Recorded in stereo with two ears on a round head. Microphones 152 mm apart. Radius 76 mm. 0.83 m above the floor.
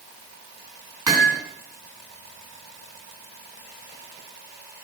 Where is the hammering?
20° right (ahead or behind), 5 m.